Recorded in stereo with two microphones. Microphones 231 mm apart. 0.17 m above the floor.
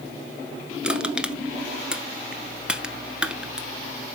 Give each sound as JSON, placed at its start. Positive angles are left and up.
{"t": 0.8, "sound": "crushing", "side_deg": -5, "distance_m": 0.9}